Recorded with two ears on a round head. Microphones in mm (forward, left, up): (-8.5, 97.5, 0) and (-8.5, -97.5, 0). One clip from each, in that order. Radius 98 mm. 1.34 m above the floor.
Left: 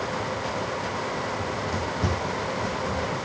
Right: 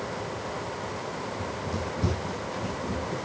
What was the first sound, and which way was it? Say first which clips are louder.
Running footsteps: left 4 dB; 10° left (ahead or behind).